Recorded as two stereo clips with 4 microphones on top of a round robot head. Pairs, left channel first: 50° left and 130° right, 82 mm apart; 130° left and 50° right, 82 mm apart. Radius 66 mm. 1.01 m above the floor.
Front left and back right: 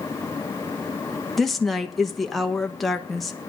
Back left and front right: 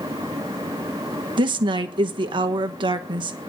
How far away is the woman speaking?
About 1.2 m.